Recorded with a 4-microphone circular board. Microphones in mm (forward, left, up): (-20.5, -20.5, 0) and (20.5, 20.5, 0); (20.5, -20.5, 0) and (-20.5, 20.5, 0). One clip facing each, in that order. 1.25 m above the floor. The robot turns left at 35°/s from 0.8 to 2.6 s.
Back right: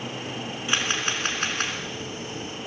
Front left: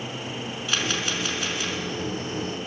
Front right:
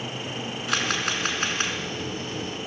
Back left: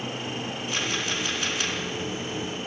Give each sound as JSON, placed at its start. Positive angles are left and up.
{"t": 0.7, "sound": "a camera shutter", "azimuth_deg": -70, "distance_m": 5.0}